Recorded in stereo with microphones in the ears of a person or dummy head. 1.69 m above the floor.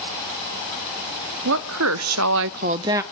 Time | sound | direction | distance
1.4 | a woman speaking | 70° right (ahead or behind) | 1.5 m